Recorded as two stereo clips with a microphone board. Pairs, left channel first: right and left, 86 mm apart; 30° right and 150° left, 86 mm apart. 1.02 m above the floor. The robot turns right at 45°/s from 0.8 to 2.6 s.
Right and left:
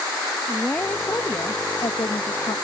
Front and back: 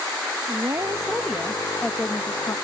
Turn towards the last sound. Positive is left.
turn(degrees=-80)